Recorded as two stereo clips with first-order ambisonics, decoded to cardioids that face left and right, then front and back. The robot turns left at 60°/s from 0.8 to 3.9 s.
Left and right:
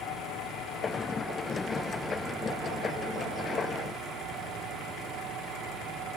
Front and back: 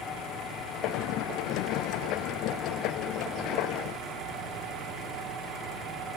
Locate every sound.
0.0 s an engine running: 55° left, 6 m; by 6.2 s 130° right, 6 m